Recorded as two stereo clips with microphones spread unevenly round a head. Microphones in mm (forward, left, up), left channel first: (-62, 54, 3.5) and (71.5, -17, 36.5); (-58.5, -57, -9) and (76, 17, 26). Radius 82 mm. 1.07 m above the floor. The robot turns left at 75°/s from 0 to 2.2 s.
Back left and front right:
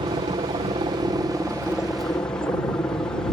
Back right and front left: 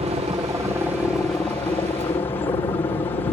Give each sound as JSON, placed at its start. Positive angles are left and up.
{"t": 0.0, "sound": "a helicopter", "azimuth_deg": 5}